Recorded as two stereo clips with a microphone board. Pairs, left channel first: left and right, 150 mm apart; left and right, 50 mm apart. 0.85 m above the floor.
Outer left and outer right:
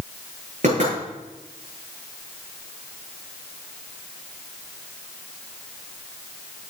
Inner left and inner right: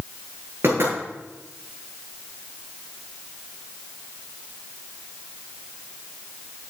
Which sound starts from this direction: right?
Knocking, at 0.6 s.